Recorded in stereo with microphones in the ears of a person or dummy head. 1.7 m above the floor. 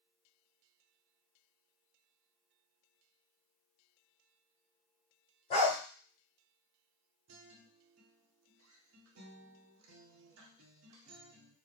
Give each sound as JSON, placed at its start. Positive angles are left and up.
{"t": 5.5, "sound": "a dog barking", "side_deg": 30, "distance_m": 1.6}
{"t": 7.3, "sound": "a guitar", "side_deg": -80, "distance_m": 0.8}